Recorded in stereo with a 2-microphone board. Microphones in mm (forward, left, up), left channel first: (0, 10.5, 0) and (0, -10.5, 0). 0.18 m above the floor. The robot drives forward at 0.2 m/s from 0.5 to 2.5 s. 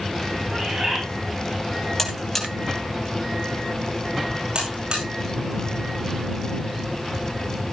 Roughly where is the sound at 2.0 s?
Left.